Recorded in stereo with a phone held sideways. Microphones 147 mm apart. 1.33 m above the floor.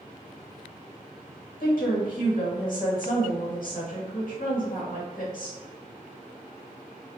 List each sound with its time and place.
1.6 s a woman speaking: 70° left (ahead or behind), 1.2 m